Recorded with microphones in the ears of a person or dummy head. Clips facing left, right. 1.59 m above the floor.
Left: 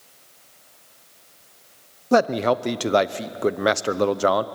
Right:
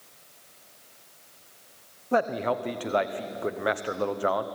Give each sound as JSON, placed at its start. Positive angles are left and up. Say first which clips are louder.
{"t": 2.1, "sound": "a man speaking", "louder": "left 7 dB", "side_deg": 55, "distance_m": 0.8}